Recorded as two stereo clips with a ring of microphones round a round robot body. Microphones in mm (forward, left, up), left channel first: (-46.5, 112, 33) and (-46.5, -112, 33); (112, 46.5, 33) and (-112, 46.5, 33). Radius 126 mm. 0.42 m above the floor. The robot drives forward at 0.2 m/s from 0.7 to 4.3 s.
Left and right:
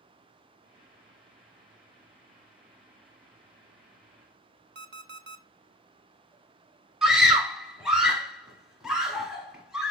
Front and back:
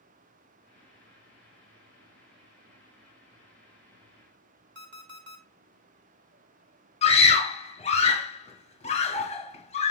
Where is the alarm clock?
135° right, 0.5 m.